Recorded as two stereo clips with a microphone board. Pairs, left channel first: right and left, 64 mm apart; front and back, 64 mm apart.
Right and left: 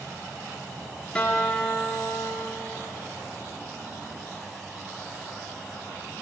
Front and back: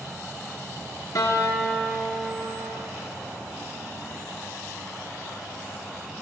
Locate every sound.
1.1 s a guitar: 20° right, 1.9 m